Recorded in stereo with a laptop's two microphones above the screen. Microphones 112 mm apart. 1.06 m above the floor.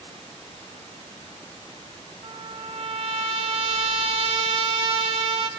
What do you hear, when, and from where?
2.2 s a trumpet: 50° right (ahead or behind), 0.9 m